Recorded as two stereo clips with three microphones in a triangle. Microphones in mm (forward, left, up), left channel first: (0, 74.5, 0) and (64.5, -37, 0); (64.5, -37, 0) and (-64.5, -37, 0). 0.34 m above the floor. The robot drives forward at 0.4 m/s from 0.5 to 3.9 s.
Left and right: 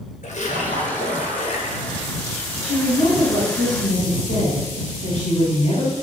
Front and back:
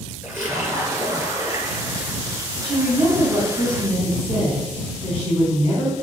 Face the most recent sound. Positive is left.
turn(degrees=145)